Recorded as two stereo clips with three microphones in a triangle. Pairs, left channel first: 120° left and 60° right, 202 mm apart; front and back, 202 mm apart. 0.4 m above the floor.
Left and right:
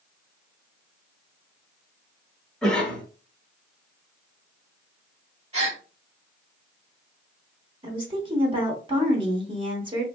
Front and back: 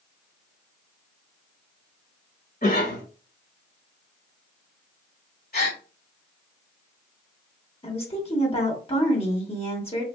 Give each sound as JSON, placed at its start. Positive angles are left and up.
{"t": 2.6, "sound": "a cough", "azimuth_deg": 35, "distance_m": 1.4}
{"t": 5.5, "sound": "a gasp", "azimuth_deg": -15, "distance_m": 1.6}
{"t": 7.8, "sound": "a woman speaking", "azimuth_deg": -25, "distance_m": 1.0}